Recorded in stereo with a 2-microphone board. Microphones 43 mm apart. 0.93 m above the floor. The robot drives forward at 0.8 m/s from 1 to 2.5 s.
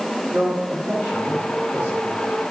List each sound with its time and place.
0.3 s a man speaking: 50° right (ahead or behind), 7 m; by 2.1 s 45° right (ahead or behind), 7.5 m